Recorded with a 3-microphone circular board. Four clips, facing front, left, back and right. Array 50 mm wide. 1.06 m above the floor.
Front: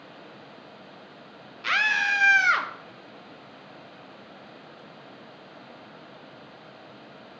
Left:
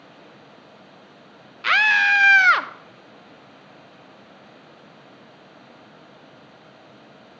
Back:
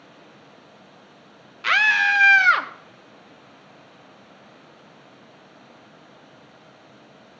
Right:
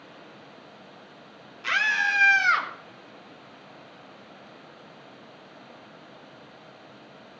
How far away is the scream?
About 0.8 m.